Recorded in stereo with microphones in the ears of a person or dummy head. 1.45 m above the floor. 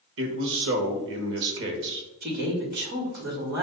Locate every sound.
0.2 s a man speaking: 60° right (ahead or behind), 1.0 m
2.2 s a woman speaking: 65° right (ahead or behind), 1.7 m